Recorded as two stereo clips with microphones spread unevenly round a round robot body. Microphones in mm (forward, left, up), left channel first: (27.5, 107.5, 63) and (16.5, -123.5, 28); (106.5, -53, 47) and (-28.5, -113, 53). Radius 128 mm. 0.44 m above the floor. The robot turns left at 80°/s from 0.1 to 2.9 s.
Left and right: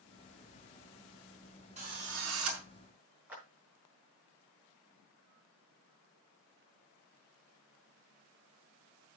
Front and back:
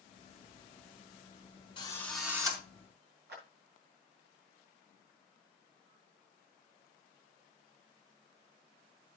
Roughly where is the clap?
Behind.